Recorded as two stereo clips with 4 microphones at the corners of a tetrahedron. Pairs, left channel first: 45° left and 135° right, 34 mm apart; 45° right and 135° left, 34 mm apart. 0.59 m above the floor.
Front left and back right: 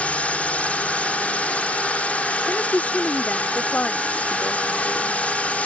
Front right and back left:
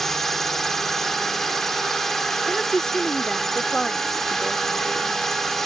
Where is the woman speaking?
25° left.